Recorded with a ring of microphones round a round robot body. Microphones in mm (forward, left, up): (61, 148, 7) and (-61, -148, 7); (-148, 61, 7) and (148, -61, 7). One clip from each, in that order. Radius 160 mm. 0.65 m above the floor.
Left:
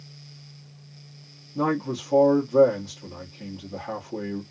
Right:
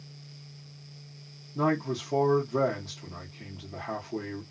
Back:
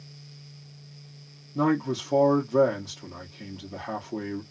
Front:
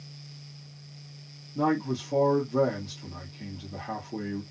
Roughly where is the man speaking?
Behind left.